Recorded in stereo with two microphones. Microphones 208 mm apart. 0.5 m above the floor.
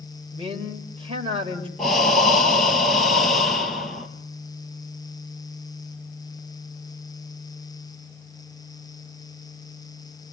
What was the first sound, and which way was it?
A man speaking, 30° right (ahead or behind).